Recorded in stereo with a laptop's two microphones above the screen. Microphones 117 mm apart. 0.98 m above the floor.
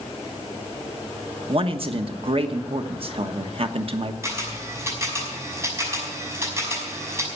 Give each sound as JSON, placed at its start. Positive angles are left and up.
{"t": 1.5, "sound": "a man speaking", "side_deg": -55, "distance_m": 1.1}
{"t": 4.2, "sound": "a camera shutter", "side_deg": -25, "distance_m": 5.5}